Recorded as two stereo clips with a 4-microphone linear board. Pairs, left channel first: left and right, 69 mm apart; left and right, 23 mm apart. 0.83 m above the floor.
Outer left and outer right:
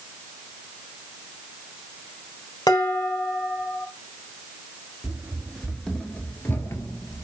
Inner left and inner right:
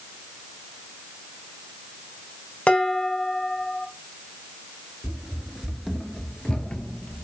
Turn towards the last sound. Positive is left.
turn(degrees=50)  # may be behind; listen again after turning